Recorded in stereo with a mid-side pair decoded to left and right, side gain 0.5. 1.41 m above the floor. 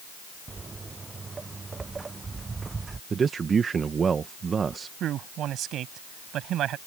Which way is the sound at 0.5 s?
30° right.